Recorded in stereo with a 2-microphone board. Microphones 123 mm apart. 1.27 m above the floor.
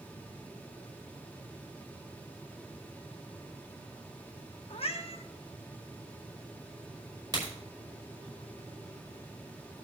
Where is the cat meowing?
55° left (ahead or behind), 1.0 m.